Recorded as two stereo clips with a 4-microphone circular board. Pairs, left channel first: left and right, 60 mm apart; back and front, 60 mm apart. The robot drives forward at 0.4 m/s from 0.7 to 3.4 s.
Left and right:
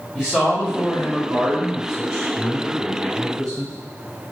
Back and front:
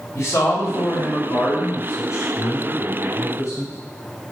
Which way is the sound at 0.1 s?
170° right.